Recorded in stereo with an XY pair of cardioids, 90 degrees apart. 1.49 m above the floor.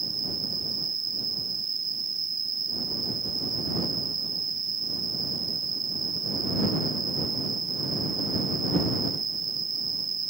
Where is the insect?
35° right.